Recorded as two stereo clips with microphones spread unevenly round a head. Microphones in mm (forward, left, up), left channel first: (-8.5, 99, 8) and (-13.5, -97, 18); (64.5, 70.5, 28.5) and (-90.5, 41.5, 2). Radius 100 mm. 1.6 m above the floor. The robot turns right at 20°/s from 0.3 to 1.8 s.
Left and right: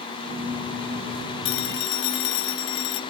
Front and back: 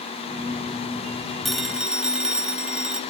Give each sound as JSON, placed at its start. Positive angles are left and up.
{"t": 1.4, "sound": "a phone ringing", "azimuth_deg": 95, "distance_m": 1.5}